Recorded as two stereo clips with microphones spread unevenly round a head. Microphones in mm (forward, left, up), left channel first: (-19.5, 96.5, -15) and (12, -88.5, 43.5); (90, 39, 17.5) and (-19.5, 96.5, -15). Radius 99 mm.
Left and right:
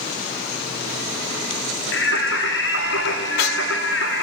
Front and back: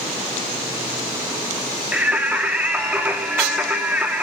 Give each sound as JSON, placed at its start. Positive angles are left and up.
{"t": 1.9, "sound": "singing", "azimuth_deg": 70, "distance_m": 2.5}